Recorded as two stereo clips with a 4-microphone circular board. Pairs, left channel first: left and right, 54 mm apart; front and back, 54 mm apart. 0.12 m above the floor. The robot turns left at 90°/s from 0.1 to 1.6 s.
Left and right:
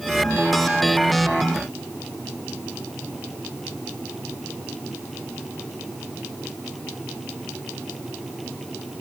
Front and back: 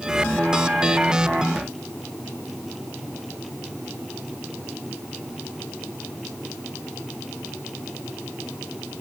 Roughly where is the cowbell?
I don't hear a cowbell.